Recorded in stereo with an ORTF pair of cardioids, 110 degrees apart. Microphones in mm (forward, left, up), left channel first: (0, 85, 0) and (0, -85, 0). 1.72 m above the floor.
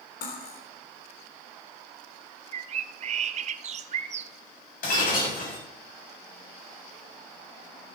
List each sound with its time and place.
0.2 s cutlery clinking: 60° left, 3.5 m
2.5 s a bird: 40° right, 0.8 m
4.8 s breaking glass: 60° left, 6.5 m